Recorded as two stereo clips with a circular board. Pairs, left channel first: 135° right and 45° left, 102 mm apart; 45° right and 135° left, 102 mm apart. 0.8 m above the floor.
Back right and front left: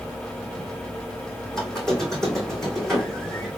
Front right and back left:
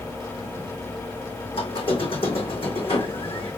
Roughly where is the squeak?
Ahead right.